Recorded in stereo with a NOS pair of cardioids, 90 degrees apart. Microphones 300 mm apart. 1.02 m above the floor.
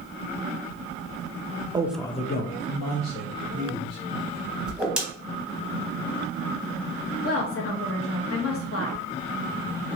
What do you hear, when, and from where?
1.7 s a man speaking: 15° right, 0.6 m; by 4.0 s 75° left, 1.8 m
4.7 s a whoosh: 5° right, 1.1 m
7.2 s a woman speaking: 50° left, 1.1 m